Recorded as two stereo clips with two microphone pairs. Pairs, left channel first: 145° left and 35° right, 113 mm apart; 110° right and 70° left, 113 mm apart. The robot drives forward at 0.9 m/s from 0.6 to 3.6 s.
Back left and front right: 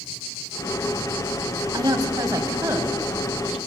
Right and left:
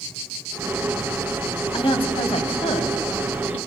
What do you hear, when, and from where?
1.7 s a woman speaking: 80° right, 3 m; by 3.6 s 110° right, 3.5 m